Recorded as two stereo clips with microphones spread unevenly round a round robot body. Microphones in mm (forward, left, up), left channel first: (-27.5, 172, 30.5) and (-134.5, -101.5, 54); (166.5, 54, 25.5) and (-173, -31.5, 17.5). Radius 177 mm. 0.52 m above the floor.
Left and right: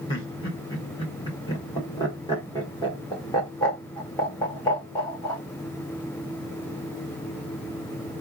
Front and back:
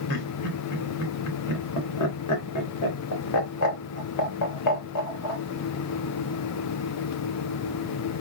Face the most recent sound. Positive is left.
turn(degrees=0)